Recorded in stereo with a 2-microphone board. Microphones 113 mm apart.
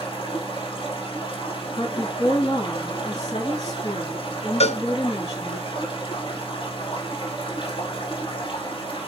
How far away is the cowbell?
About 0.6 m.